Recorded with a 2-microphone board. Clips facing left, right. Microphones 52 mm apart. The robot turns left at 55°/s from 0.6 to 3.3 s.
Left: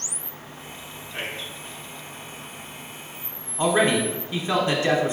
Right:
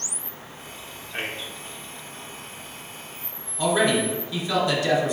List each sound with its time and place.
1.1 s a man speaking: 35° right (ahead or behind), 1.2 m
3.6 s a man speaking: 30° left (ahead or behind), 0.9 m